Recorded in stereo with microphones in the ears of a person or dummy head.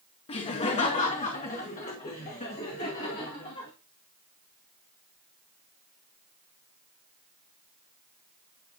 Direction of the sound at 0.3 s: 25° left (ahead or behind).